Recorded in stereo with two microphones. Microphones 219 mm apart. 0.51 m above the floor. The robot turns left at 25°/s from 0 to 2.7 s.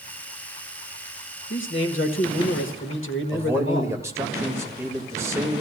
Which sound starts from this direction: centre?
A man speaking, at 3.3 s.